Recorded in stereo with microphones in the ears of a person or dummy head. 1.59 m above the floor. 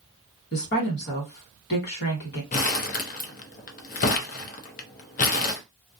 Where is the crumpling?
45° left (ahead or behind), 0.5 m.